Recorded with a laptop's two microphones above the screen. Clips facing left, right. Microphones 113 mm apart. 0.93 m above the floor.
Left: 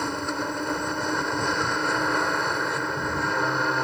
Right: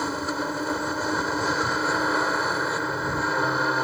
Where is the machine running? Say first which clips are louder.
Right 1 dB; 5° right (ahead or behind).